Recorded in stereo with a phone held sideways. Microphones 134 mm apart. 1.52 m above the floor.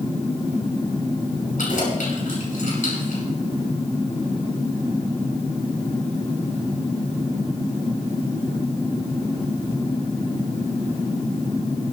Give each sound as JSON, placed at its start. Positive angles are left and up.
{"t": 1.6, "sound": "keys jangling", "side_deg": 80, "distance_m": 6.0}